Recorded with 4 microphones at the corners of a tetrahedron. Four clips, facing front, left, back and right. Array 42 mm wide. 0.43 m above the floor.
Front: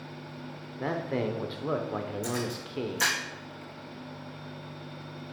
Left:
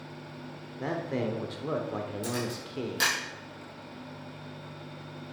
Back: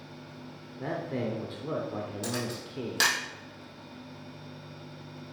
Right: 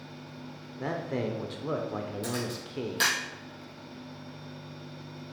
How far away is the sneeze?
I don't hear a sneeze.